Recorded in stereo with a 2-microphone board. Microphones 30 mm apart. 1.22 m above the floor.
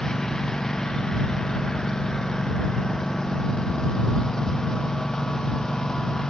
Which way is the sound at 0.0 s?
20° left (ahead or behind).